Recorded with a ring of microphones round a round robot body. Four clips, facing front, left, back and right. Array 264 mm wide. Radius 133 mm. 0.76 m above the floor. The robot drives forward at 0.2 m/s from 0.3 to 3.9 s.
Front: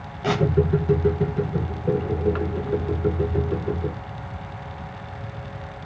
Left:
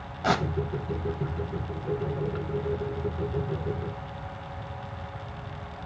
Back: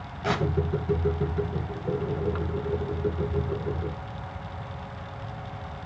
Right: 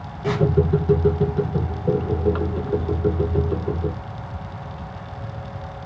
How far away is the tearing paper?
About 0.7 m.